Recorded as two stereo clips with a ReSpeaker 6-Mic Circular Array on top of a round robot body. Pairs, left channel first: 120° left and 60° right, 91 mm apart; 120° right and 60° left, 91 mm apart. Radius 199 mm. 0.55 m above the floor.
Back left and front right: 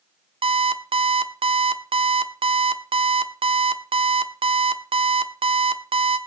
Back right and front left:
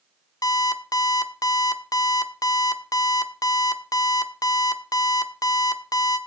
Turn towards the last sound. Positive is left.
turn(degrees=-70)